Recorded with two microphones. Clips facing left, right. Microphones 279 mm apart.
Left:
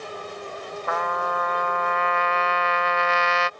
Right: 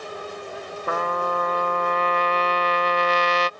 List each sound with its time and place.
0.9 s a trumpet: 45° right (ahead or behind)